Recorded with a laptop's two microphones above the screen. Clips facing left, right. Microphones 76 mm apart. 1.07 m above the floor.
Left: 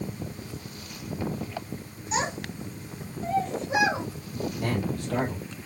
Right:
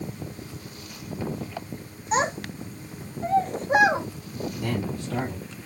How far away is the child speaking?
About 1.4 m.